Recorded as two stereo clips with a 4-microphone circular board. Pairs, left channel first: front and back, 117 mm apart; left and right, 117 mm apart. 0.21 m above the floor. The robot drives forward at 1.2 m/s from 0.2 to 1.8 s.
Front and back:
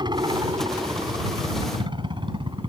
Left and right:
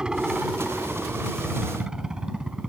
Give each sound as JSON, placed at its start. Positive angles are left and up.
{"t": 0.0, "sound": "a helicopter", "azimuth_deg": -170}